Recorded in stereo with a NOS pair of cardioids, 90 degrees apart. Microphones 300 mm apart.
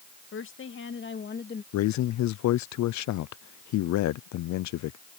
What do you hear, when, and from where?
0.3 s a woman speaking: 45° left; by 1.6 s 30° left
1.7 s a man speaking: 65° left